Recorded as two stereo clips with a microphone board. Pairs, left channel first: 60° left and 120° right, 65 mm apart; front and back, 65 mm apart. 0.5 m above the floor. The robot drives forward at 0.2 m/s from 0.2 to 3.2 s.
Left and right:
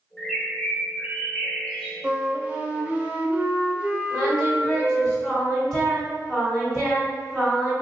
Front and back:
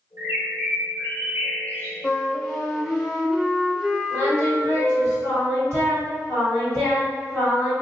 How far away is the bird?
About 0.8 m.